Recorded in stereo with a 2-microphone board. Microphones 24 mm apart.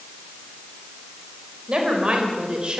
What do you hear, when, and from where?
1.7 s a woman speaking: 45° right (ahead or behind), 5 m